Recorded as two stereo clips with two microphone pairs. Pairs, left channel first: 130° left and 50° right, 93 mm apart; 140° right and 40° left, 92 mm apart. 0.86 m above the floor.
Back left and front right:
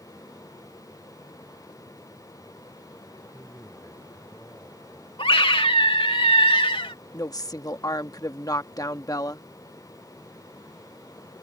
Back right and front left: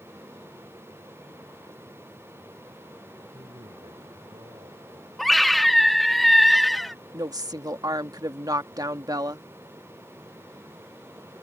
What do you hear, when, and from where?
3.3 s a man speaking: 65° left
5.2 s a scream: 130° left
7.1 s a woman speaking: 85° left